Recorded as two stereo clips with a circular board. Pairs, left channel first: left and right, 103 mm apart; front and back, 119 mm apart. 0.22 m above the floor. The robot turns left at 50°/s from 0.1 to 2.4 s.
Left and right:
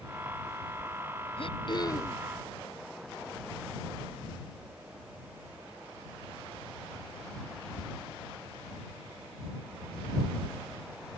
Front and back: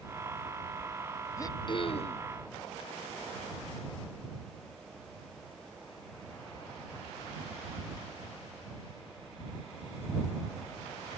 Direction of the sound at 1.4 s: 65° left.